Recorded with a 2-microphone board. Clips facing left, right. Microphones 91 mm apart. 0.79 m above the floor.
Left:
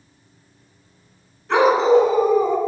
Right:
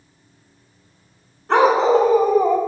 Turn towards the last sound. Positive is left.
turn(degrees=-55)  # may be behind; listen again after turning